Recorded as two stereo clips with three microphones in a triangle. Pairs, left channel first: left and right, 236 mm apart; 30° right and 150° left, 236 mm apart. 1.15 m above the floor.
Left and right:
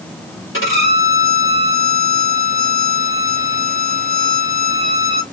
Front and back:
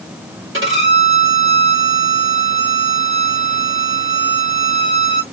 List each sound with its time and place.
0.5 s a violin: 120° left, 1.9 m